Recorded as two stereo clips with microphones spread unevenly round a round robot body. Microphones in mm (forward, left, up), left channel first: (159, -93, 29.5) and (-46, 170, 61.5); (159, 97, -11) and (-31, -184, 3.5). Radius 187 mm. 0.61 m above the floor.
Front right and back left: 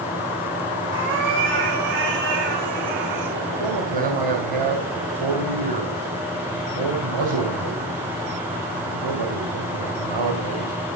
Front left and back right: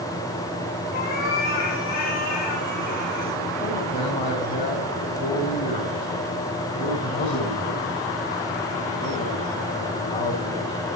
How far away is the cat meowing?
About 5 m.